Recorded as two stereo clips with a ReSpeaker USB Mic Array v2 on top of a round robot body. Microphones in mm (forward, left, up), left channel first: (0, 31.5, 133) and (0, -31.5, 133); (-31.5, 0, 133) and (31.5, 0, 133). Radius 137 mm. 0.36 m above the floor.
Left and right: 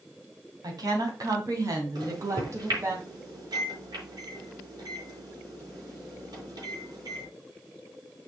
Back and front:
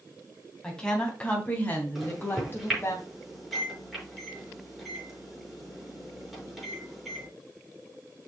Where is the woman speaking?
100° right, 3 m; by 3.0 s 130° right, 3 m.